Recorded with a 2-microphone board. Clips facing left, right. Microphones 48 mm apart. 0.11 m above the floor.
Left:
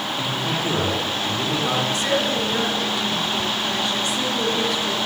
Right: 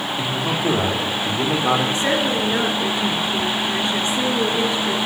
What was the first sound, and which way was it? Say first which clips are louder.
A man speaking: right 2 dB; 15° right (ahead or behind).